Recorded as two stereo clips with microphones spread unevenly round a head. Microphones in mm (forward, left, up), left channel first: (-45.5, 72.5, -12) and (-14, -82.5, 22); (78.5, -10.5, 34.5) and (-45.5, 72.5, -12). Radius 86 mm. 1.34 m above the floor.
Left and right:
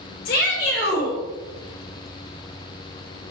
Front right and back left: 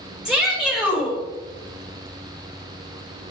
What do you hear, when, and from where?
0.2 s a shout: 60° left, 6 m